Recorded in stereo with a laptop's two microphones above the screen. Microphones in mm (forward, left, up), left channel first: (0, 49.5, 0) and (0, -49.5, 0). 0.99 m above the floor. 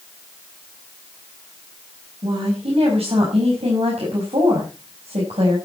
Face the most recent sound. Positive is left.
turn(degrees=-80)